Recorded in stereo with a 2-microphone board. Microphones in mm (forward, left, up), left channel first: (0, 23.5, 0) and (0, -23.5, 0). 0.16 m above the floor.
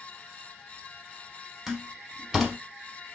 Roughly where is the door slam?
Centre.